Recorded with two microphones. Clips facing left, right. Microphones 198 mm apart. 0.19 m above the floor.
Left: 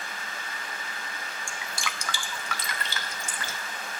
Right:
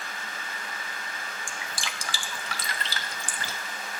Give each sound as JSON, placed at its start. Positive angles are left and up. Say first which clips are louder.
{"t": 1.5, "sound": "dripping", "louder": "left 3 dB", "side_deg": -35, "distance_m": 0.6}